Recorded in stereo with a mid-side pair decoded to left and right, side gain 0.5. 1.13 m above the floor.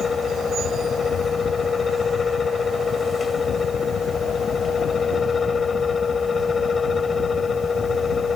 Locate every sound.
0.0 s a fan: 35° left